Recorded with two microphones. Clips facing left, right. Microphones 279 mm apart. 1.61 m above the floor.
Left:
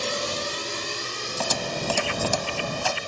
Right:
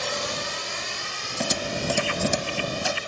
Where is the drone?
40° left (ahead or behind); by 3.1 s 50° left (ahead or behind).